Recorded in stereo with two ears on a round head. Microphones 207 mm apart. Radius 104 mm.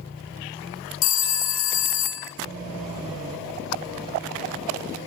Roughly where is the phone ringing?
Left.